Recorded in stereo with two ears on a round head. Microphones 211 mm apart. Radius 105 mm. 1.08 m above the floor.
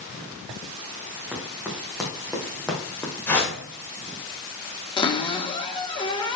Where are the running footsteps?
5° right (ahead or behind), 4 m; by 3.1 s 10° left (ahead or behind), 2.5 m.